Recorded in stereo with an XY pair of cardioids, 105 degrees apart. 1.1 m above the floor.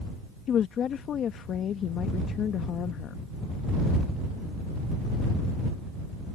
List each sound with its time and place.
0.5 s a woman speaking: 60° left